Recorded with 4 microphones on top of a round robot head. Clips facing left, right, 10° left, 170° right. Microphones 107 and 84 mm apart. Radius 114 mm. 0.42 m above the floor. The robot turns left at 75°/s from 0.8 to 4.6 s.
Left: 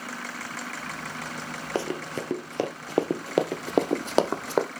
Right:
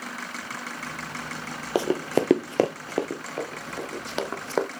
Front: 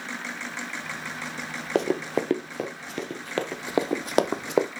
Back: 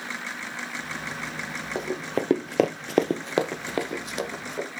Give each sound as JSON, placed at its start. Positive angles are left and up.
{"t": 1.8, "sound": "running footsteps", "azimuth_deg": -15, "distance_m": 0.6}